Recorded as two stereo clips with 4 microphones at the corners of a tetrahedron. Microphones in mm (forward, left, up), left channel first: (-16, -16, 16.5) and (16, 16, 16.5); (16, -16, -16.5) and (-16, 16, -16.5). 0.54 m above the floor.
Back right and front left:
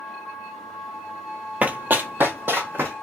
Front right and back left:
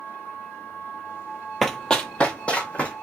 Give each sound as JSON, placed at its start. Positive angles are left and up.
{"t": 1.6, "sound": "running footsteps", "azimuth_deg": 40, "distance_m": 0.6}